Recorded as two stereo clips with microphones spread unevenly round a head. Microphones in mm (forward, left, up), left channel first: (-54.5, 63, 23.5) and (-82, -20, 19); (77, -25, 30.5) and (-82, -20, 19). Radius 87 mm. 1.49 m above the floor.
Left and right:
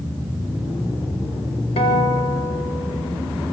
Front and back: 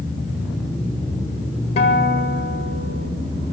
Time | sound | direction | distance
1.8 | a guitar | 50° left | 4.5 m